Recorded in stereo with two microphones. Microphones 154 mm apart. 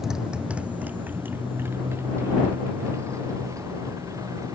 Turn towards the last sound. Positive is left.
turn(degrees=-20)  # may be behind; listen again after turning